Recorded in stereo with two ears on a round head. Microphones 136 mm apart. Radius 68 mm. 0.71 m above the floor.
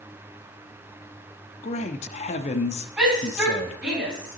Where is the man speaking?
45° left (ahead or behind), 0.8 m.